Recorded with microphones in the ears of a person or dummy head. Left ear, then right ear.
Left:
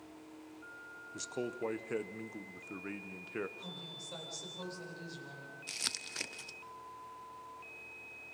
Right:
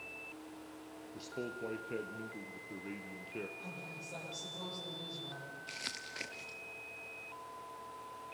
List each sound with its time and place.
1.1 s a man speaking: 50° left (ahead or behind), 1.3 m
3.6 s a woman speaking: 45° left (ahead or behind), 9 m
5.7 s crumpling: 20° left (ahead or behind), 0.5 m